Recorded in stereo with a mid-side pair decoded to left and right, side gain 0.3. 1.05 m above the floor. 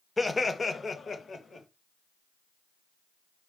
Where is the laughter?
25° left, 0.7 m; by 1.7 s 65° left, 1.2 m.